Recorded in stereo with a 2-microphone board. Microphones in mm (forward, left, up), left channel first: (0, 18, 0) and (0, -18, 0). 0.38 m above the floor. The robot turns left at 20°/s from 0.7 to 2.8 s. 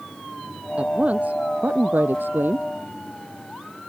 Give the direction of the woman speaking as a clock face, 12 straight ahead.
1 o'clock.